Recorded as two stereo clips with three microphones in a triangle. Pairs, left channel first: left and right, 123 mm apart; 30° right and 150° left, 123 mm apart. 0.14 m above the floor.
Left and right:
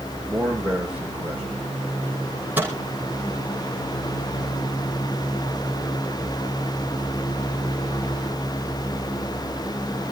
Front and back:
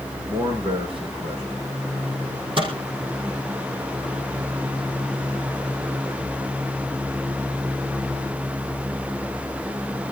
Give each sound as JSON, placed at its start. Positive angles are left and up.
{"t": 0.3, "sound": "a man speaking", "azimuth_deg": -170, "distance_m": 6.5}
{"t": 2.6, "sound": "a microwave", "azimuth_deg": -165, "distance_m": 4.5}